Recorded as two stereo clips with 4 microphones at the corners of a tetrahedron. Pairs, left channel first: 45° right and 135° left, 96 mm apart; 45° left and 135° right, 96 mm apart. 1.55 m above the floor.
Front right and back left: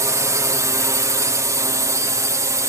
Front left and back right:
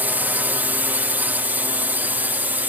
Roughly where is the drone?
Behind.